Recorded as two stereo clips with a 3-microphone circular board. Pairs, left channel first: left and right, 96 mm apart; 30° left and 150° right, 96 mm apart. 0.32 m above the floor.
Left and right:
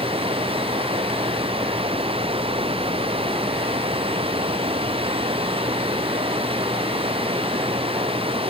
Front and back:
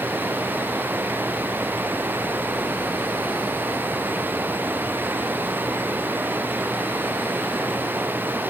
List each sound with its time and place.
0.0 s running water: 80° right